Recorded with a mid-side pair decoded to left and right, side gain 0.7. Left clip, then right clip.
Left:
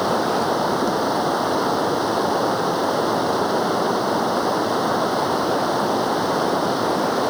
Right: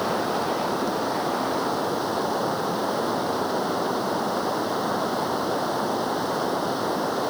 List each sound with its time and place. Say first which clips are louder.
0.0 s running water: left 5 dB; 20° left